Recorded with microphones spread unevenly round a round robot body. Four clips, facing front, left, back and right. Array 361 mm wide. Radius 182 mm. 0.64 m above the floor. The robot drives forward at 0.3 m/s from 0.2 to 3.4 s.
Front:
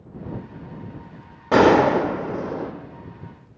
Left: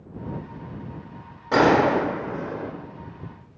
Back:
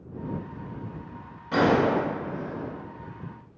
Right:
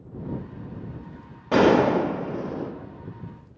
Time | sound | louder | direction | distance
1.5 | a gunshot | even, front 7 dB | 5° right | 0.8 m